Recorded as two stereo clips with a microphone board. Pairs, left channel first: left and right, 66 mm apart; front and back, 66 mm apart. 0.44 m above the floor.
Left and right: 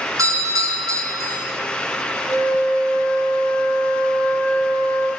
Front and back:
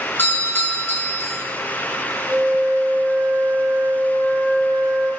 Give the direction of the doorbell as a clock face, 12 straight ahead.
2 o'clock.